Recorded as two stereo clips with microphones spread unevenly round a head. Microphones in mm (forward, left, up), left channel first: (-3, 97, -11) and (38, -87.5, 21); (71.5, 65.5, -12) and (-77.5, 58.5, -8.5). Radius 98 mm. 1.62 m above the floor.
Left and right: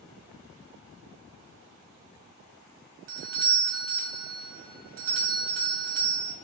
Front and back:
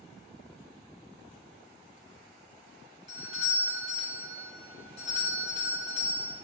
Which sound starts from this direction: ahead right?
A doorbell, at 3.1 s.